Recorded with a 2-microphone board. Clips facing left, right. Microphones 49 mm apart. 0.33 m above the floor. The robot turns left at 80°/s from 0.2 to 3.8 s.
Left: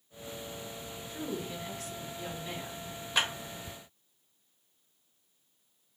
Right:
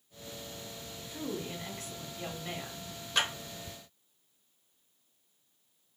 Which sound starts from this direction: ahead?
A woman speaking, at 1.1 s.